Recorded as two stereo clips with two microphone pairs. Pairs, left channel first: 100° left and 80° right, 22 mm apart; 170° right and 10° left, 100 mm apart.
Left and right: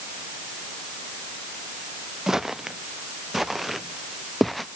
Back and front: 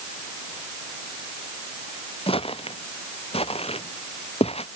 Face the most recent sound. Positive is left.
turn(degrees=-175)